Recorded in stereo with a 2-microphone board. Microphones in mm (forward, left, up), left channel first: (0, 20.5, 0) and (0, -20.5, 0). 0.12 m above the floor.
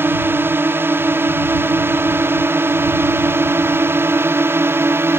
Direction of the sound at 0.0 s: 60° right (ahead or behind).